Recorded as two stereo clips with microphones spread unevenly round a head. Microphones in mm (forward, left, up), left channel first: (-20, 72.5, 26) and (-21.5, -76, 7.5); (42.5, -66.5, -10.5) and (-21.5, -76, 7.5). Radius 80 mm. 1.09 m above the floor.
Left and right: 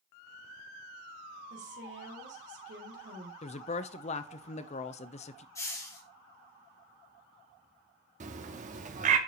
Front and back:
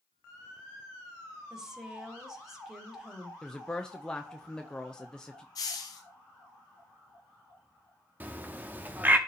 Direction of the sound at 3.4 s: 60° left.